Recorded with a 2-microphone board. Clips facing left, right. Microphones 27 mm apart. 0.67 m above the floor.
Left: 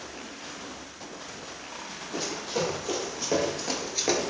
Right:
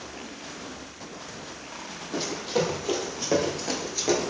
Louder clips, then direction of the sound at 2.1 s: Right 4 dB; 30° right (ahead or behind).